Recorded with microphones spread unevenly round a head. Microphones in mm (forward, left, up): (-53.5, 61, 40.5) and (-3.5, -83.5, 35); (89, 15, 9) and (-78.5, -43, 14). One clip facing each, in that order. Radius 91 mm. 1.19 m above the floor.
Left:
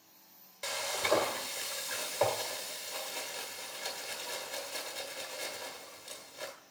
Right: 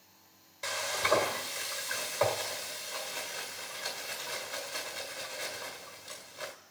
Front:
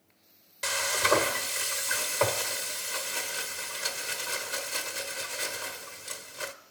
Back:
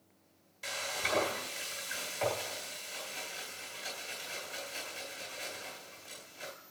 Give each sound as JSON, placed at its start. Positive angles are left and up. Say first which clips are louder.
{"t": 0.6, "sound": "frying", "louder": "right 1 dB, front 10 dB", "azimuth_deg": 30, "distance_m": 1.6}